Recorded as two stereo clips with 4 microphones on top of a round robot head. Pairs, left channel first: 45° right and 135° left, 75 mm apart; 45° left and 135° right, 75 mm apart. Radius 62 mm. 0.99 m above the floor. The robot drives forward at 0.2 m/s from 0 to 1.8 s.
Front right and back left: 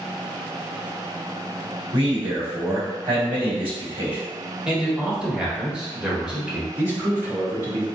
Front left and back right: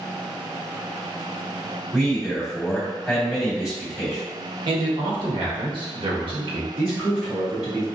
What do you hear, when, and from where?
1.9 s a man speaking: 140° left, 1.9 m
4.7 s a man speaking: 145° right, 1.0 m
6.8 s a man speaking: 145° left, 1.7 m